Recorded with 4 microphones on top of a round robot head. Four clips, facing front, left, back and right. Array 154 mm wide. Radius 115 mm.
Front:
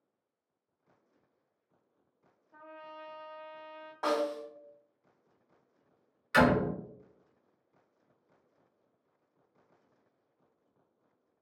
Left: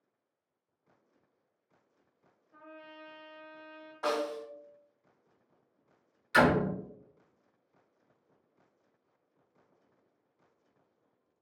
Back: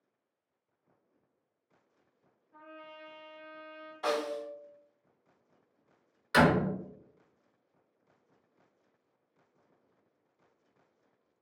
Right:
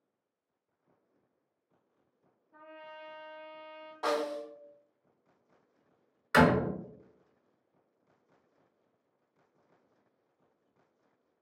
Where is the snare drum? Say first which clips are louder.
Right 1 dB, front 1 dB; 20° right, 1.6 m.